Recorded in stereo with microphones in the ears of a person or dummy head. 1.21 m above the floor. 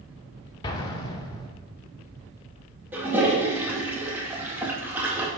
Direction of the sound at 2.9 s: 10° right (ahead or behind).